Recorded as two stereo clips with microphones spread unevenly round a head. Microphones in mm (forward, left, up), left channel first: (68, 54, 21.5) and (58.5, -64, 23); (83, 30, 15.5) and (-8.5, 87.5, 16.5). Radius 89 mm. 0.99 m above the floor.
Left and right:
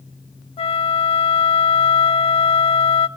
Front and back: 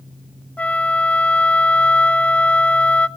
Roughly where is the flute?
Ahead left.